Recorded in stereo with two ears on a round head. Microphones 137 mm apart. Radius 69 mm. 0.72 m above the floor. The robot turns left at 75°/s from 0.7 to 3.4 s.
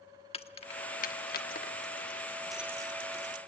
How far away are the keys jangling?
About 1.1 m.